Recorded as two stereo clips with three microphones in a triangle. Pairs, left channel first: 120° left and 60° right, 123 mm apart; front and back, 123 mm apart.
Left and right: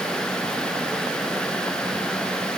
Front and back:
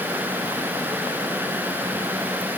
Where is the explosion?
No explosion in this recording.